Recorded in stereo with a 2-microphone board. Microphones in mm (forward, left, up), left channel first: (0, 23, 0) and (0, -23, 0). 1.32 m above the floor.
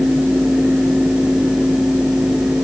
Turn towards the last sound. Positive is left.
No sound to turn to.